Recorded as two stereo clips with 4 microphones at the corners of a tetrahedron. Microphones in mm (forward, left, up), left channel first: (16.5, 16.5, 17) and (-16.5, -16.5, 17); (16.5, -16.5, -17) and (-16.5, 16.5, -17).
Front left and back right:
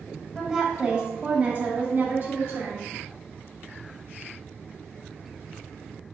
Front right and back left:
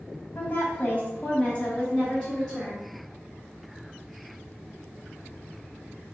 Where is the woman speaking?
50° right, 1.4 m; by 2.9 s 125° right, 1.8 m.